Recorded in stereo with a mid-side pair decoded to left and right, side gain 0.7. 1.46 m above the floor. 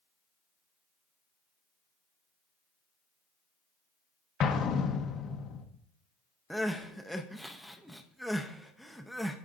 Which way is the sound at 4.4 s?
45° left.